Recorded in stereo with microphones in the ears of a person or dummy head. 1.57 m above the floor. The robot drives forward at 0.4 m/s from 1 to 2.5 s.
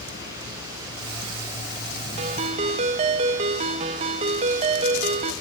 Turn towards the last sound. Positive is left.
turn(degrees=-25)  # may be behind; listen again after turning